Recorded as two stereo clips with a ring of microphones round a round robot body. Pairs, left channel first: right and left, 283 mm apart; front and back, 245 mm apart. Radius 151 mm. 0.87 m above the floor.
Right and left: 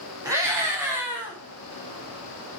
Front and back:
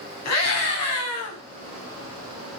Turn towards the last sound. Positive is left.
turn(degrees=5)